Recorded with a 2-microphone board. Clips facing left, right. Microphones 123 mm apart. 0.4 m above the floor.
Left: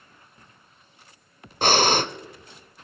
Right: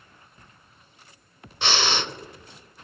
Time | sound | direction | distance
1.6 | breathing | 45° left (ahead or behind) | 0.7 m